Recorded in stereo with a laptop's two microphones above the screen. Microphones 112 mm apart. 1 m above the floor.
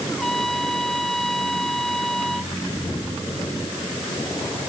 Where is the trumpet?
5° left (ahead or behind).